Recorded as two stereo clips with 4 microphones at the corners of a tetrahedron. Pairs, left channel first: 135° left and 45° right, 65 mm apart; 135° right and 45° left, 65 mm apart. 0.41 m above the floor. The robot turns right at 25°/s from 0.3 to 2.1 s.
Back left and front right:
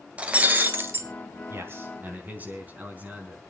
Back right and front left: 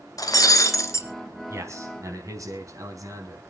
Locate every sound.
0.2 s breaking glass: 115° right, 1.6 m; by 1.1 s 95° right, 1.6 m
1.5 s a man speaking: 5° left, 4.5 m; by 3.4 s 20° left, 4.5 m